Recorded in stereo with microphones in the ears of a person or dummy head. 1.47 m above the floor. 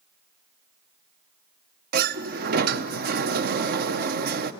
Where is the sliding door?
50° right (ahead or behind), 0.7 m.